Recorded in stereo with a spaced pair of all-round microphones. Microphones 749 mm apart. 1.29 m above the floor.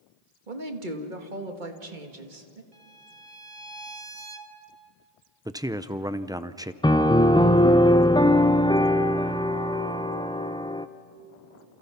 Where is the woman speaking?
75° right (ahead or behind), 2 m.